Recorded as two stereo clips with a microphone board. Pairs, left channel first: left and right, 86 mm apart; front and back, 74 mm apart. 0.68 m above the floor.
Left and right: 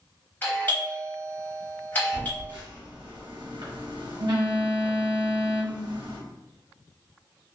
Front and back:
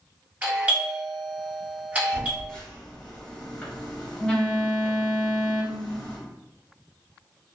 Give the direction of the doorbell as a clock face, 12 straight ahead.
8 o'clock.